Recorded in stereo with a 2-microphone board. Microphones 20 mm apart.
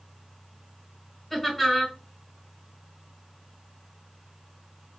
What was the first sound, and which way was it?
Laughter, 15° left (ahead or behind).